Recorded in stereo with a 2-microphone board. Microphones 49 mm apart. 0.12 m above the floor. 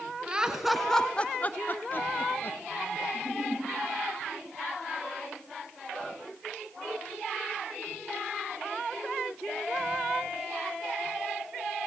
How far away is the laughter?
About 1.3 m.